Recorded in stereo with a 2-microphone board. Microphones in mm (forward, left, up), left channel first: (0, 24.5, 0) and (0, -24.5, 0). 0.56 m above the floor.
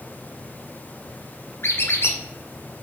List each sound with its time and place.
1.6 s a squeak: 55° left (ahead or behind), 1.2 m